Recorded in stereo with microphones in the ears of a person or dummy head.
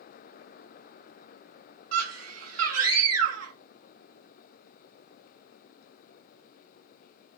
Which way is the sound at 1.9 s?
85° right.